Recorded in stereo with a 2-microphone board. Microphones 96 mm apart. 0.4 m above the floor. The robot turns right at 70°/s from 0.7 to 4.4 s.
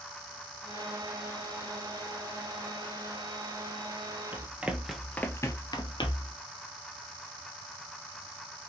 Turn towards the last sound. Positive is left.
turn(degrees=65)  # may be behind; listen again after turning